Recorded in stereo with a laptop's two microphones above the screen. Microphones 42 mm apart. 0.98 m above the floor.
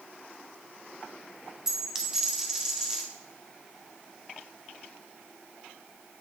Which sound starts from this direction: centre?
A dropped coin, at 1.7 s.